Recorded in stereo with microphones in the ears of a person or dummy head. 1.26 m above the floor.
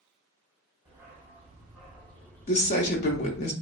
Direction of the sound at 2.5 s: 30° left (ahead or behind).